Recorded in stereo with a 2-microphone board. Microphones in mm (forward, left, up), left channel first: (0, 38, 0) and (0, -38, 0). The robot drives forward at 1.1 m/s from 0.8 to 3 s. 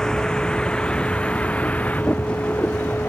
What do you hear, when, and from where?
0.0 s a vehicle: 10° left (ahead or behind); by 3.1 s 25° left (ahead or behind)